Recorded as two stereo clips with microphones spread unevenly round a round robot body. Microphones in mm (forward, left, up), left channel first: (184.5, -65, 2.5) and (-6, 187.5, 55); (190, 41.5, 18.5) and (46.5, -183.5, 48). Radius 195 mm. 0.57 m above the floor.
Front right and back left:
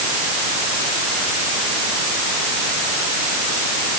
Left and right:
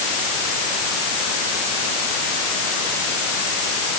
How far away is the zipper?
No zipper in this recording.